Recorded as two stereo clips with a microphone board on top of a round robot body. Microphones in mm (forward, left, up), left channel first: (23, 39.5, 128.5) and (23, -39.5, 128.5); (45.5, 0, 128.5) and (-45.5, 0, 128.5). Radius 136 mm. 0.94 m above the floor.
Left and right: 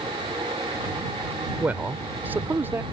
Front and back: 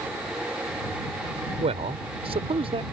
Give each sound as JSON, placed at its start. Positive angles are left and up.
{"t": 1.6, "sound": "a man speaking", "azimuth_deg": -165}